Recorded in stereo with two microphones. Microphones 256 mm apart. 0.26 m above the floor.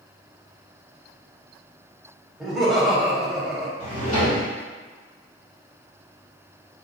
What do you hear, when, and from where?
2.4 s laughter: centre (ahead or behind), 1.0 m
3.8 s a drawer: 80° left, 1.9 m